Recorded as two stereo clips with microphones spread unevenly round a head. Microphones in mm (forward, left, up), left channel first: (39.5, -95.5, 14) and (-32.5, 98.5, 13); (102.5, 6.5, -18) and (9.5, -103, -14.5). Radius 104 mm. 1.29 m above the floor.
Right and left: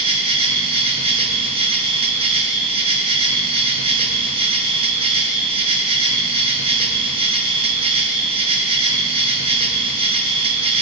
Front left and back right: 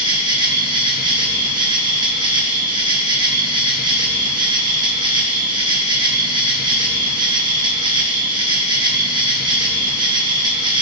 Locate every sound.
0.0 s an insect: 170° left, 0.8 m